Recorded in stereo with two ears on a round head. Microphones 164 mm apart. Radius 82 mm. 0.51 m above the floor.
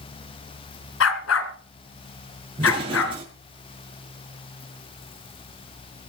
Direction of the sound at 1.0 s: 85° left.